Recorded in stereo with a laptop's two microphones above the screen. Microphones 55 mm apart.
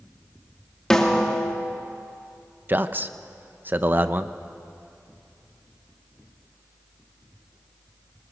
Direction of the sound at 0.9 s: 10° left (ahead or behind).